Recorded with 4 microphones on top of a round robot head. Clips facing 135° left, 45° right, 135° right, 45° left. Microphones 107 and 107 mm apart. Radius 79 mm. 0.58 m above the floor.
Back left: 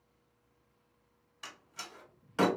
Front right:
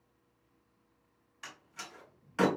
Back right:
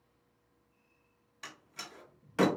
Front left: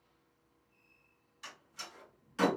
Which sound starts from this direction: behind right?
A door slam, at 1.4 s.